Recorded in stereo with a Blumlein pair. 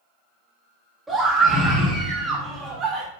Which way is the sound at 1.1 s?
15° right.